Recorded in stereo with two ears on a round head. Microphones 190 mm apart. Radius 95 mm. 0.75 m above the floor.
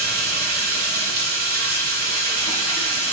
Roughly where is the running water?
Right.